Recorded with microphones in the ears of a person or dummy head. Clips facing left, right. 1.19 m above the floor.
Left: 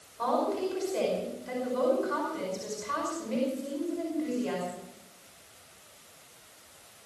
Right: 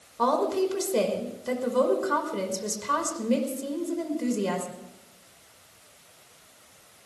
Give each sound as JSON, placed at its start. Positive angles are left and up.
{"t": 0.2, "sound": "a woman speaking", "side_deg": -65, "distance_m": 5.0}